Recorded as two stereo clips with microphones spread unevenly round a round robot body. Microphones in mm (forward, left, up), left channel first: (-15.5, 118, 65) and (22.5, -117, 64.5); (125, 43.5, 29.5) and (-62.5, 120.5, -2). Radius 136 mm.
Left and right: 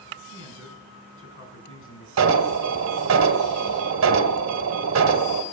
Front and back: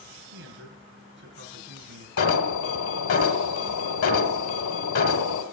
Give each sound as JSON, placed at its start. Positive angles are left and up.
{"t": 0.3, "sound": "a man speaking", "azimuth_deg": 135, "distance_m": 6.0}
{"t": 2.2, "sound": "an alarm", "azimuth_deg": -50, "distance_m": 1.9}